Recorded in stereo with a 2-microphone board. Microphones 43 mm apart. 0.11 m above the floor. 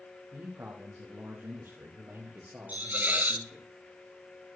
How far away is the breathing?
No breathing in this recording.